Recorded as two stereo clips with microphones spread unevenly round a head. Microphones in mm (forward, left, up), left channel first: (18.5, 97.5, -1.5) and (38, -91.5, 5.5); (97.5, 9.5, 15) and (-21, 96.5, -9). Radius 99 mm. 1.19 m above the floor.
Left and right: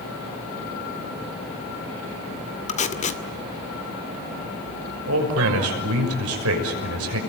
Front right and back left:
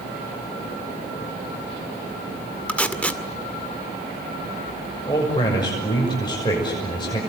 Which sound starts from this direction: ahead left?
Tape being pulled, at 2.7 s.